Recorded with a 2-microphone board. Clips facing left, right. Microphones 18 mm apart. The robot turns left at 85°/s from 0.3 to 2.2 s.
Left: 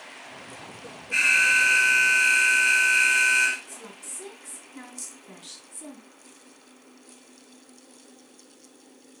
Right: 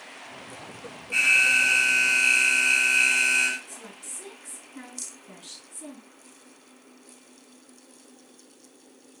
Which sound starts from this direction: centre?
A woman speaking, at 3.7 s.